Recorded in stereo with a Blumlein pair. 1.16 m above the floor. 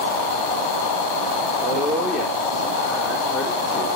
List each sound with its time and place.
1.6 s a woman speaking: 5° right, 1.7 m